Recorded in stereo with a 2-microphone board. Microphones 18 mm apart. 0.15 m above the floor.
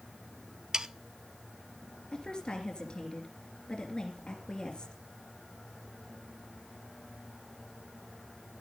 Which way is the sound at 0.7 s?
45° right (ahead or behind).